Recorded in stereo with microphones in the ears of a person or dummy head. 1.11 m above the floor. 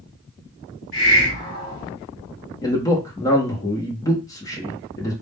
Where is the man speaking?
20° left (ahead or behind), 0.5 m.